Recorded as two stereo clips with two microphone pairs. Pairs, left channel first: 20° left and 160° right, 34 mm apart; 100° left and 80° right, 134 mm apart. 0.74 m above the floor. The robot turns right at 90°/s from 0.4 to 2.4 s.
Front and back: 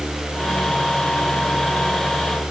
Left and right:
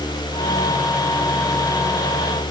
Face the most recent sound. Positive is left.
No sound to turn to.